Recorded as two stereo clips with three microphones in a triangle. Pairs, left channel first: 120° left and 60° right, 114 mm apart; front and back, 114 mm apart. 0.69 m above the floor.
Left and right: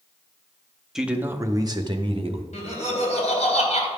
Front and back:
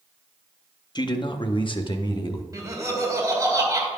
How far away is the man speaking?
About 0.7 m.